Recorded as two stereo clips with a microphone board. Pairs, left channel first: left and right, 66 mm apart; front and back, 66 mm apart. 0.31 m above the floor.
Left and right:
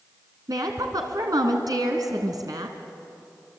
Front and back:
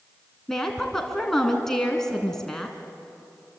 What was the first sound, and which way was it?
A woman speaking, 85° right.